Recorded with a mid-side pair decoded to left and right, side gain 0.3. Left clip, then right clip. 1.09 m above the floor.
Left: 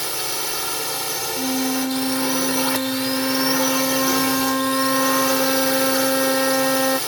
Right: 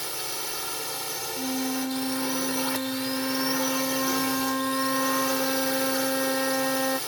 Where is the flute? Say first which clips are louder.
Left 6 dB; 65° left.